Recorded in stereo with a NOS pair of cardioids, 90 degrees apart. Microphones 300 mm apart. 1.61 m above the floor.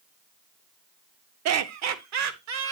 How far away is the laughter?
About 0.9 m.